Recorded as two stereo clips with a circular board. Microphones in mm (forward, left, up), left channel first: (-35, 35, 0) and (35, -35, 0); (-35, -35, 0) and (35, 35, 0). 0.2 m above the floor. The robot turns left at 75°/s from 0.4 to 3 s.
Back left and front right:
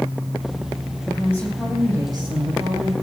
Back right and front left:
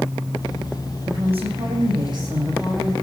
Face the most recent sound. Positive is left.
turn(degrees=-60)